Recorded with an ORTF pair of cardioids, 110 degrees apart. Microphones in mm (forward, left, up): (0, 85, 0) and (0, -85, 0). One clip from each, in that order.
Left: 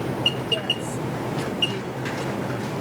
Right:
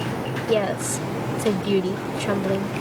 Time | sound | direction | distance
0.5 | a woman speaking | 65° right | ?